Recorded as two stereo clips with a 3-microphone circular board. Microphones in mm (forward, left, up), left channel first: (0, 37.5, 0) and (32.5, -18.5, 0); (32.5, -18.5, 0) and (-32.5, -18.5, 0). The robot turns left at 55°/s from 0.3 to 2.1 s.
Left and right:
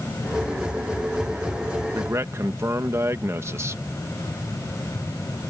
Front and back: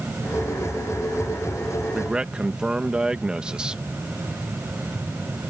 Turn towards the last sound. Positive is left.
turn(degrees=-105)